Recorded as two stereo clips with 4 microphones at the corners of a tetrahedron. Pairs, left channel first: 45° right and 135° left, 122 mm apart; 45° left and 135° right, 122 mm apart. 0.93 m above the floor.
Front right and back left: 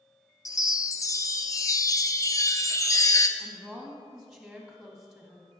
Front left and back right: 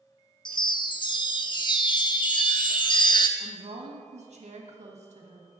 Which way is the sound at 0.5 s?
15° left.